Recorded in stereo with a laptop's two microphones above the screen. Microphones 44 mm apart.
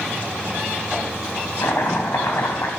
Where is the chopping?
80° left, 2.5 m.